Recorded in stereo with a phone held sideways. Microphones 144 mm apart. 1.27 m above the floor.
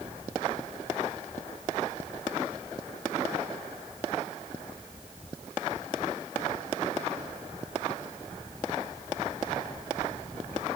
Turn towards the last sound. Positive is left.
No sound to turn to.